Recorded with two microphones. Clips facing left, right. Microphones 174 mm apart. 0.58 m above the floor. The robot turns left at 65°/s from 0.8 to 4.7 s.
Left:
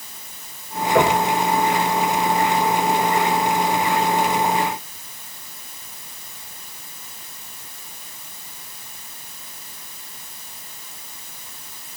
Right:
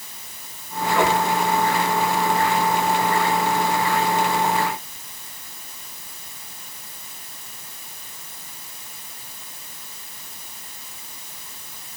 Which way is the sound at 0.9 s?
85° left.